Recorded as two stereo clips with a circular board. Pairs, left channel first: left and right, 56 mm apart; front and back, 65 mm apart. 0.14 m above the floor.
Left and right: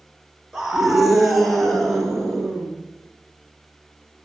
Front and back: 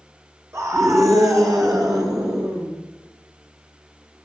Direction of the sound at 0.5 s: 170° right.